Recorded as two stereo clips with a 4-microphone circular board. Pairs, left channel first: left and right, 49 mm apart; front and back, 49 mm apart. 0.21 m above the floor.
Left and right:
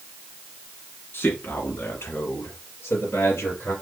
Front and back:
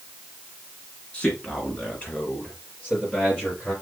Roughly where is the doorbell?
No doorbell in this recording.